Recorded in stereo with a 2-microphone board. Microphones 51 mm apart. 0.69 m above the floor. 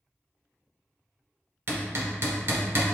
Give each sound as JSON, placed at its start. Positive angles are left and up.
{"t": 1.7, "sound": "hammering", "side_deg": -50, "distance_m": 1.0}